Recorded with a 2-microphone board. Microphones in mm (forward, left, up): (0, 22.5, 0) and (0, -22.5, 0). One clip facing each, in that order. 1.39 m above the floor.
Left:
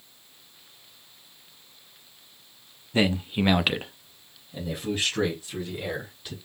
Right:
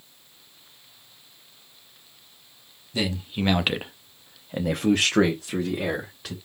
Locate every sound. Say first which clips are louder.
2.9 s a man speaking: left 4 dB; 30° left (ahead or behind), 0.9 m; by 6.3 s 85° right, 1.8 m